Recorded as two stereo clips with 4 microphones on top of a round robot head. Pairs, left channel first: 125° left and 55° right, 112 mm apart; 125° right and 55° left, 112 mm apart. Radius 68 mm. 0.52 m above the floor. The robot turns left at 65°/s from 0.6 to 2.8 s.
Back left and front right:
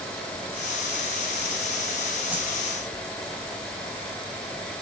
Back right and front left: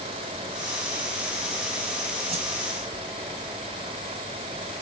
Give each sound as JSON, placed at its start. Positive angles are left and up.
{"t": 2.3, "sound": "a whoosh", "azimuth_deg": 25, "distance_m": 4.0}